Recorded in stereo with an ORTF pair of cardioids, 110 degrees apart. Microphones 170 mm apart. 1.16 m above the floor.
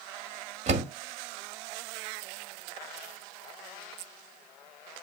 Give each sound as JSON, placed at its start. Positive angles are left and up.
{"t": 0.7, "sound": "a door slam", "azimuth_deg": -45, "distance_m": 1.7}